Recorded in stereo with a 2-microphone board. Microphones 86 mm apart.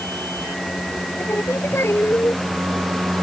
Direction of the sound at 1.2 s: 30° left (ahead or behind).